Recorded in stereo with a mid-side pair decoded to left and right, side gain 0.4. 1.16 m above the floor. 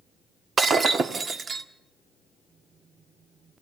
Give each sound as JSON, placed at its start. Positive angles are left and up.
{"t": 0.6, "sound": "breaking glass", "azimuth_deg": -45, "distance_m": 1.6}